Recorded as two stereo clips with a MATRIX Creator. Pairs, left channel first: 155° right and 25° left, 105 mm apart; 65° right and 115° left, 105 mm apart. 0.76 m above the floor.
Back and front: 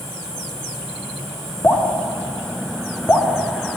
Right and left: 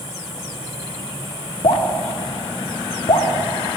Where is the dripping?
85° right, 1.2 m.